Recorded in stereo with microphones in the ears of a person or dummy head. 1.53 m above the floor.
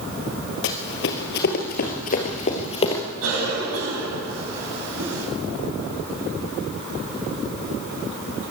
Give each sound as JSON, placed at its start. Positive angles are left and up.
{"t": 0.6, "sound": "running footsteps", "side_deg": 50, "distance_m": 2.5}
{"t": 3.2, "sound": "a cough", "side_deg": -90, "distance_m": 9.0}